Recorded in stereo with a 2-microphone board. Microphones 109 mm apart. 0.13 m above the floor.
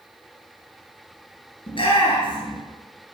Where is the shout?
55° left (ahead or behind), 2.5 m.